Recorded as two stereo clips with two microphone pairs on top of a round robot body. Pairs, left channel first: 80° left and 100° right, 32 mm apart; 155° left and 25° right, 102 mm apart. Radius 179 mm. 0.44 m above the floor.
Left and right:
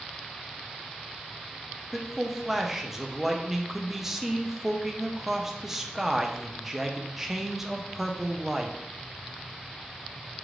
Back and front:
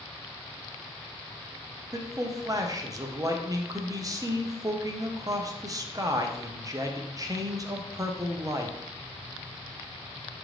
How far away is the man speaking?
About 0.9 m.